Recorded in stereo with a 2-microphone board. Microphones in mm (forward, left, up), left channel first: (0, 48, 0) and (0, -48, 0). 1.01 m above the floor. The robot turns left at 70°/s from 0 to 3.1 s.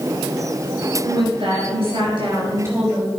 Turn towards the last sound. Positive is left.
turn(degrees=175)